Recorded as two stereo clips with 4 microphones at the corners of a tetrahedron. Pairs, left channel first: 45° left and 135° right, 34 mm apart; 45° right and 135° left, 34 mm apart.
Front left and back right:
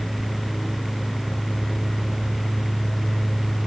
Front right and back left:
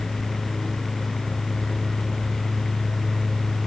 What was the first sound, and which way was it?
Only background noise.